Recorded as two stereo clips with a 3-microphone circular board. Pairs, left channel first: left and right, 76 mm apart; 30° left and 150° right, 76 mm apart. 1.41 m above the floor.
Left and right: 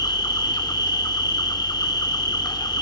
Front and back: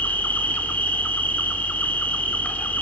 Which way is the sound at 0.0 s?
95° left.